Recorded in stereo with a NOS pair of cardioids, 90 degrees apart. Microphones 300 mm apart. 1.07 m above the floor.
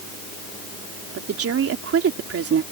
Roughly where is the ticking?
No ticking in this recording.